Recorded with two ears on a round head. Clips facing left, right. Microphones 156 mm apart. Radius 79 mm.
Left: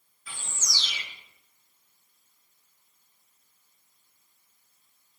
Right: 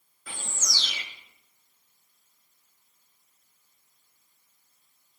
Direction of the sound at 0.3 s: 45° right (ahead or behind).